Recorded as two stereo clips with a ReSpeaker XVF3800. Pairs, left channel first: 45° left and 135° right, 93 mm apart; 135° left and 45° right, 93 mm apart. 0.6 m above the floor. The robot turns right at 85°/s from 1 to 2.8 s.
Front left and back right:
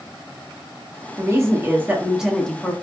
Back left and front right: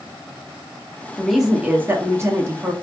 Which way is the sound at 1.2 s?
145° right.